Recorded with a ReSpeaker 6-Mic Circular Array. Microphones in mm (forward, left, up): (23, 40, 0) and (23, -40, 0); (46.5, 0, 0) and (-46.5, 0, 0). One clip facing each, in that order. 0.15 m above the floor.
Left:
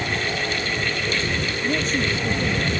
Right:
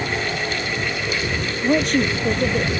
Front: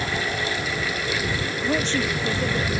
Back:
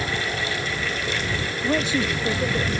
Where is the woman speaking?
100° right; by 2.7 s 105° right.